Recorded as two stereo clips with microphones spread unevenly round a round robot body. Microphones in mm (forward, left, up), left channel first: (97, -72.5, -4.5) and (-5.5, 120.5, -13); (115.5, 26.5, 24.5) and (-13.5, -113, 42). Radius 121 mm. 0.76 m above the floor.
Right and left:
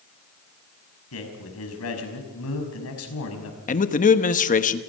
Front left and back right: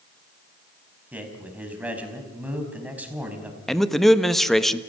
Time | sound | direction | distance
1.1 | a man speaking | 50° right | 5 m
3.7 | a man speaking | 35° right | 1.2 m